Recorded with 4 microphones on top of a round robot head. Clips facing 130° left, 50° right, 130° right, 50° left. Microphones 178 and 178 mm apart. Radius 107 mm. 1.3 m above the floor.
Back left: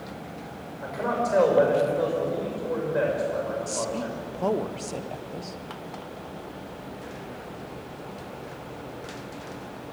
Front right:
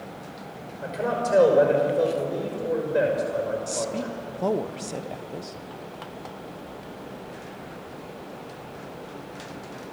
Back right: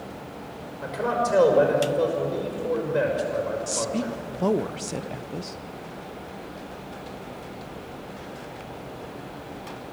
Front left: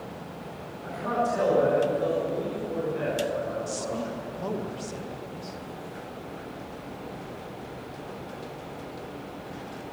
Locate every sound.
0.8 s a man speaking: 115° right, 5.5 m
3.7 s a woman speaking: 135° right, 0.9 m